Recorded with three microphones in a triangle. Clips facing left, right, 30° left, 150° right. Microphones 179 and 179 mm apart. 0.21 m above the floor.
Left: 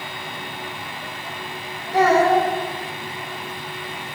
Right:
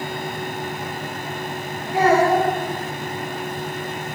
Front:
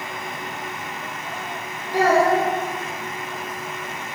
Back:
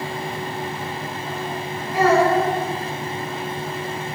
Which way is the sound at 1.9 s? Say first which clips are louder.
Even, back 1 dB; 85° left.